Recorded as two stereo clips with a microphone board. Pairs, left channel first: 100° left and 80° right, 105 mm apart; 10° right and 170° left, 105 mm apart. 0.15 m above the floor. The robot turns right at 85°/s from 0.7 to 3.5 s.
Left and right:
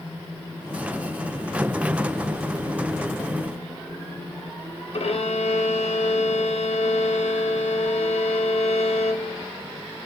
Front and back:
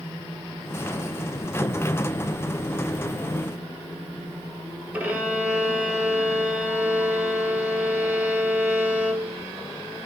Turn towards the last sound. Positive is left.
turn(degrees=95)